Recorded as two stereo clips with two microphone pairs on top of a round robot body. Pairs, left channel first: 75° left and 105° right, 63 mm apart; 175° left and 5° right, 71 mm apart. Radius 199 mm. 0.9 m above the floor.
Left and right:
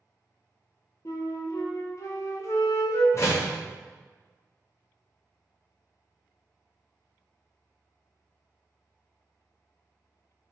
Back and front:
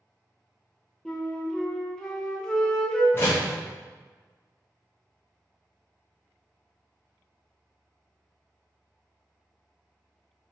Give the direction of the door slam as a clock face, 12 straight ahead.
8 o'clock.